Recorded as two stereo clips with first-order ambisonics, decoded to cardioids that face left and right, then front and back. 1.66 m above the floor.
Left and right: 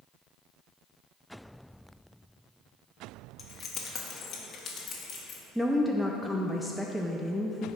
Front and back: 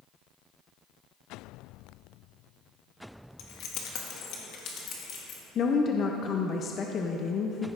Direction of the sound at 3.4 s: 25° left.